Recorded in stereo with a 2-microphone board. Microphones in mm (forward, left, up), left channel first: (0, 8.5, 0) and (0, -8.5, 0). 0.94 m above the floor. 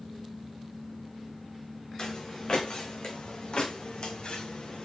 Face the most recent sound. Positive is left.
turn(degrees=75)  # may be behind; listen again after turning